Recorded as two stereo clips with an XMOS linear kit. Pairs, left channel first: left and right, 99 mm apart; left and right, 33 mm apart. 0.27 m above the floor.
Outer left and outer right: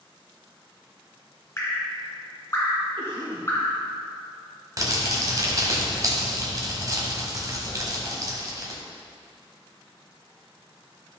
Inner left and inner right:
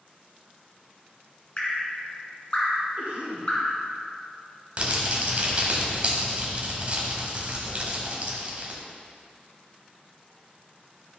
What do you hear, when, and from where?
1.6 s dripping: 30° left (ahead or behind), 2.0 m
3.0 s a cough: 55° right (ahead or behind), 2.5 m
4.8 s crumpling: 35° right (ahead or behind), 1.5 m